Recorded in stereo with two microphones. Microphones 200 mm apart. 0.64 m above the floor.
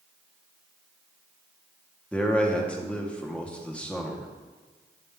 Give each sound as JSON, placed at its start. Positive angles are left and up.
{"t": 2.1, "sound": "a man speaking", "side_deg": 5, "distance_m": 1.0}